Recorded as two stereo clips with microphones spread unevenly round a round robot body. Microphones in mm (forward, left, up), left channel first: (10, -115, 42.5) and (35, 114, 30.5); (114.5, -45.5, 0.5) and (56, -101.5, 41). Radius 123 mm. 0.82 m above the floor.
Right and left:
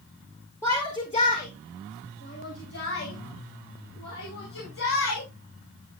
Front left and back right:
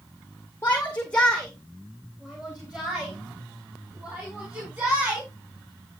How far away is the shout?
About 2 m.